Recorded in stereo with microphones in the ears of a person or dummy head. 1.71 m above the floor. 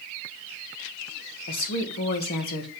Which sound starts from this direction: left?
A woman speaking, at 1.5 s.